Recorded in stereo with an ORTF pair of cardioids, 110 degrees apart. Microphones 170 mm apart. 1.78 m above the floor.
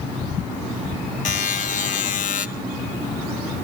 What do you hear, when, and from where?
1.2 s a buzzer: 50° left, 1.7 m